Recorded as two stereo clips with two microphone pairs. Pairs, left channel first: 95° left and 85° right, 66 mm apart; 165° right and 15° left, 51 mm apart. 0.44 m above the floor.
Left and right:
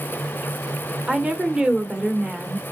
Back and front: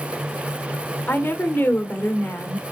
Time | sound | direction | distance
1.1 | a woman speaking | 155° right | 1.2 m